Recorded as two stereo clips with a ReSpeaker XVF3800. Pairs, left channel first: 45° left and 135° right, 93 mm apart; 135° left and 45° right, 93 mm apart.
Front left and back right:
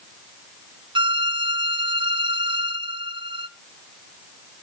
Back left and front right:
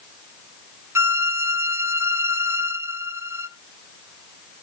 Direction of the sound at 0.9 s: 105° right.